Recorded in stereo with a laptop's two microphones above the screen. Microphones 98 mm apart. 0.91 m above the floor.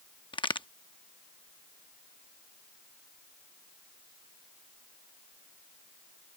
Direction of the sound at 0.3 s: 65° left (ahead or behind).